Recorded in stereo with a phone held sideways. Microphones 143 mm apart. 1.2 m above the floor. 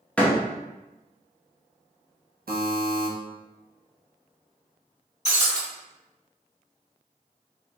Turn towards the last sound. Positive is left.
turn(degrees=45)  # may be behind; listen again after turning